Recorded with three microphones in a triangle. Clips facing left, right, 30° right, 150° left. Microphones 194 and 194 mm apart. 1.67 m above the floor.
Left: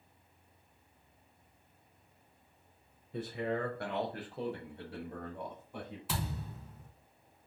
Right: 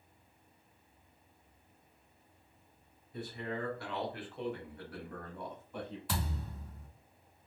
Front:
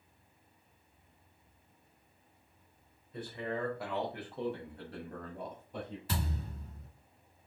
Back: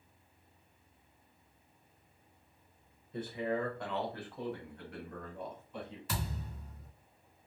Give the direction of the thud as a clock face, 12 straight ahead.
12 o'clock.